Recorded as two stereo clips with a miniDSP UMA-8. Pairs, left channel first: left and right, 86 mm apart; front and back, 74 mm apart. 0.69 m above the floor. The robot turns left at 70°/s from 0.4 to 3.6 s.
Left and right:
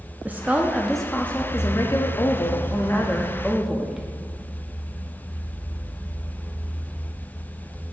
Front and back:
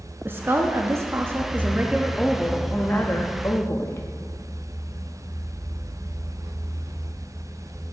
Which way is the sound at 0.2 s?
145° right.